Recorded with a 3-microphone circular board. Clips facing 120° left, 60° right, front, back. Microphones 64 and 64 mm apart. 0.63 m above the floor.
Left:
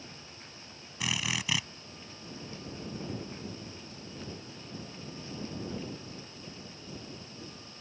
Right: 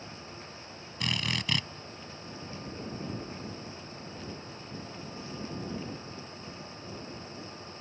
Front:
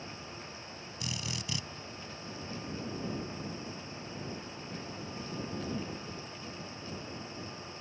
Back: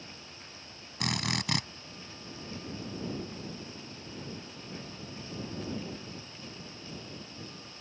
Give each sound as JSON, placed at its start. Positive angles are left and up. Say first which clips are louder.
{"t": 1.0, "sound": "a drill", "louder": "right 1 dB, back 8 dB", "azimuth_deg": -155}